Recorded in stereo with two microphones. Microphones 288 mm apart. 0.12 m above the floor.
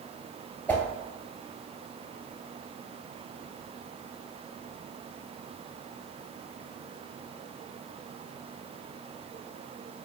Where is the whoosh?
5° left (ahead or behind), 1.0 m.